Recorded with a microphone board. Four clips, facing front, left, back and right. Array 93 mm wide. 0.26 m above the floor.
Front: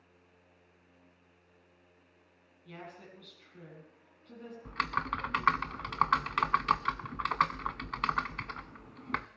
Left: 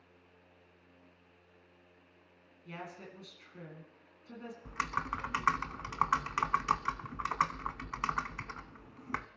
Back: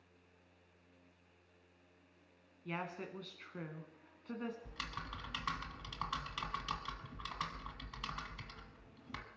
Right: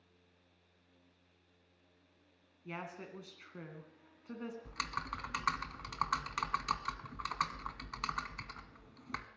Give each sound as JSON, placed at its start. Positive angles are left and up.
{"t": 2.6, "sound": "a woman speaking", "azimuth_deg": -150, "distance_m": 3.0}
{"t": 4.7, "sound": "typing on a keyboard", "azimuth_deg": 25, "distance_m": 0.5}